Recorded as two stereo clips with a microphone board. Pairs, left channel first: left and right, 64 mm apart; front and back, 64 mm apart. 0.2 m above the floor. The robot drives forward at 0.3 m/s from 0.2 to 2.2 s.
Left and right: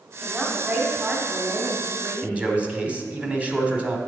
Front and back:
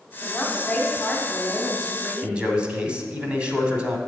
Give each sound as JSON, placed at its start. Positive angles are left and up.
{"t": 0.2, "sound": "a woman speaking", "azimuth_deg": -40, "distance_m": 1.4}
{"t": 2.2, "sound": "a man speaking", "azimuth_deg": -135, "distance_m": 1.0}